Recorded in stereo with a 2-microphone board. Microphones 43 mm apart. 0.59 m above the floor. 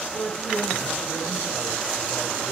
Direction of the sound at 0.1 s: 15° left (ahead or behind).